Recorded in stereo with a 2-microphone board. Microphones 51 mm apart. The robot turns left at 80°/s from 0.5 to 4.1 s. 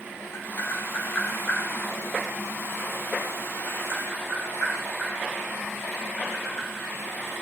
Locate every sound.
0.3 s tapping: 50° left (ahead or behind), 4.5 m; by 6.8 s 60° left (ahead or behind), 4.5 m